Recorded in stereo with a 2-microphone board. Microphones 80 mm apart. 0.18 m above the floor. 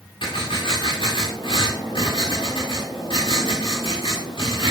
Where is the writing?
85° left, 10 m.